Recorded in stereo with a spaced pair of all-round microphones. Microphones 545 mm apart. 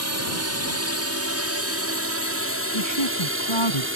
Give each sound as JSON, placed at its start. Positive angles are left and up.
{"t": 0.0, "sound": "a drone", "side_deg": -30}
{"t": 2.7, "sound": "a woman speaking", "side_deg": 60}